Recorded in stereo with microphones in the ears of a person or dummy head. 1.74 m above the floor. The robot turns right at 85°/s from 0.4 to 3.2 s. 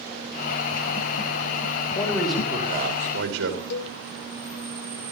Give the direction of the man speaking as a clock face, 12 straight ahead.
7 o'clock.